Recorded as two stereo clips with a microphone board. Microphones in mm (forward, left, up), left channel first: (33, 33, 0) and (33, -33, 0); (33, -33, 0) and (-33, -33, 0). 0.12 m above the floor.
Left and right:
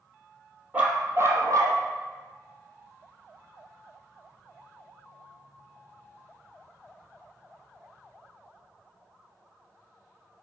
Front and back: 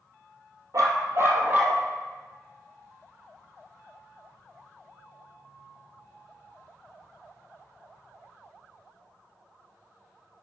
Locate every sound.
0.7 s a dog barking: 155° right, 1.4 m; by 1.8 s 110° right, 1.8 m